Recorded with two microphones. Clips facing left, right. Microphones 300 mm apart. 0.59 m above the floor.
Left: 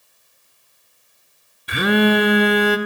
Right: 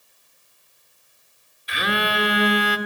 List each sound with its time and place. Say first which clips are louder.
1.7 s a phone buzzing: left 12 dB; 55° left (ahead or behind), 1.3 m